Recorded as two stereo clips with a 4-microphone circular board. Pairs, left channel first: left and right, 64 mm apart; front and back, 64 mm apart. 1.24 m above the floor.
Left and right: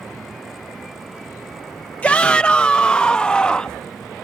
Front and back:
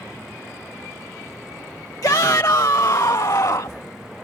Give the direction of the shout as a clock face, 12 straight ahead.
11 o'clock.